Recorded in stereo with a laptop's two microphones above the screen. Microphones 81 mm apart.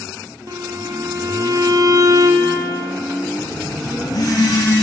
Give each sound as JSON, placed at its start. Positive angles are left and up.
{"t": 0.5, "sound": "a violin", "side_deg": -50, "distance_m": 0.8}
{"t": 3.4, "sound": "a phone buzzing", "side_deg": 50, "distance_m": 1.6}